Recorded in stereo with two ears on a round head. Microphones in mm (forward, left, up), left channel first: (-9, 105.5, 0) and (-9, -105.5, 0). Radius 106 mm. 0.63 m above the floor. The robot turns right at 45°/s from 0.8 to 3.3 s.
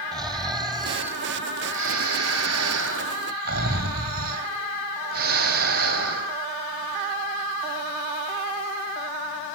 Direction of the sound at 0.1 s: 160° right.